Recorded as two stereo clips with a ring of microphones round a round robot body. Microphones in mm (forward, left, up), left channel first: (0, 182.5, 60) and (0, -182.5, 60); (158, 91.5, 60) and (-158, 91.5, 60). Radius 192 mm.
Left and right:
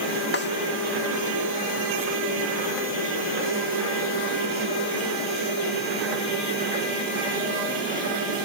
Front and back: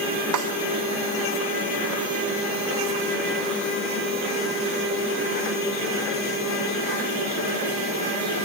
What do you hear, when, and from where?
0.3 s a snare drum: 155° left